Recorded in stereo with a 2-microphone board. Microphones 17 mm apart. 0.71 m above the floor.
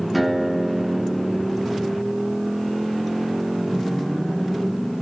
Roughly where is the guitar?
Centre.